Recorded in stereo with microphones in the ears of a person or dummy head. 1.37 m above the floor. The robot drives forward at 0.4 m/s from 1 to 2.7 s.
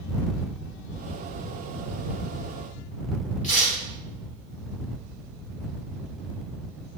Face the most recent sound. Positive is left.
turn(degrees=30)  # may be behind; listen again after turning